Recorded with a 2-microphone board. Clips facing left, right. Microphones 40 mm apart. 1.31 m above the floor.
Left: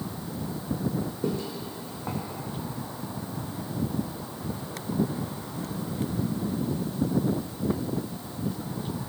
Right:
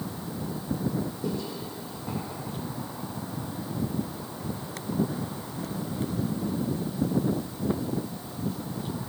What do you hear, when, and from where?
1.2 s footsteps: 45° left (ahead or behind), 4 m